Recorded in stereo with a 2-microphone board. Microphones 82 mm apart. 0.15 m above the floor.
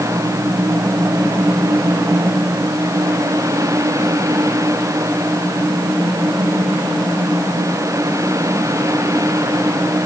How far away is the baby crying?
No baby crying in this recording.